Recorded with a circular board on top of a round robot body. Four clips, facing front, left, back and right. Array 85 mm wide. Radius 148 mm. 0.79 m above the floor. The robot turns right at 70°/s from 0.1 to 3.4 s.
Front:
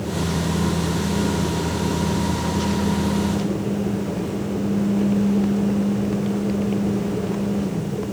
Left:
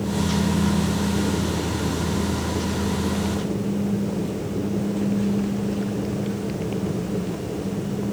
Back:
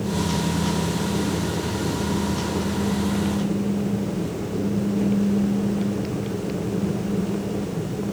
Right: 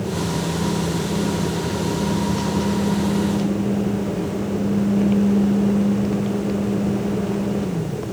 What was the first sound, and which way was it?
Only background noise.